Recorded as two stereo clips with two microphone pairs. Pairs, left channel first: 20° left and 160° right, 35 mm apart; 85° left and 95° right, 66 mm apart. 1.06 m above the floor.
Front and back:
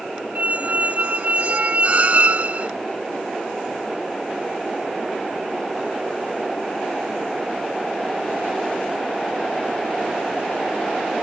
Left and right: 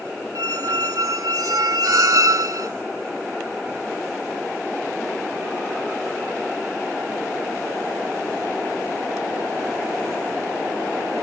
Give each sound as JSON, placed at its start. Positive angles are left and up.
{"t": 0.3, "sound": "a squeak", "azimuth_deg": -120}